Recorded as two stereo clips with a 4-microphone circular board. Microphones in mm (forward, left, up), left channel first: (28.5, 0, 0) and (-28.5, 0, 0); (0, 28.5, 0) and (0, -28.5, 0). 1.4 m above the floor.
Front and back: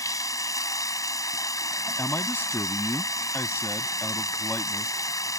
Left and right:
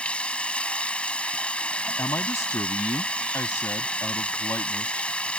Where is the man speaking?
55° left.